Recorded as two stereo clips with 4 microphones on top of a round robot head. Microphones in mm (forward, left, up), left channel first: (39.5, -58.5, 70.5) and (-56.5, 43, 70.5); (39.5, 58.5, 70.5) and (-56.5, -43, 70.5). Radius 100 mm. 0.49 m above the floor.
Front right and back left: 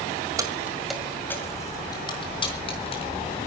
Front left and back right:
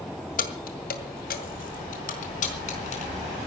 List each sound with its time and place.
0.4 s keys jangling: 65° left, 1.7 m; by 3.5 s straight ahead, 4.5 m